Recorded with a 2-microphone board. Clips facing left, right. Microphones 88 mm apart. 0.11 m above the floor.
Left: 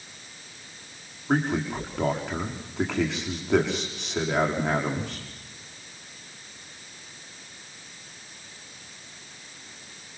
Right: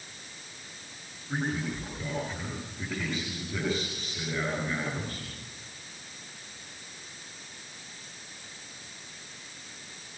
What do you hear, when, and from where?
1.3 s a man speaking: 70° left (ahead or behind), 6.5 m